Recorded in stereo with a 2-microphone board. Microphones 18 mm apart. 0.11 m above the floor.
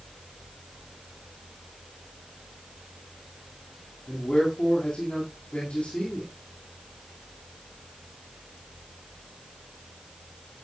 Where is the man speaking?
60° left (ahead or behind), 9 m.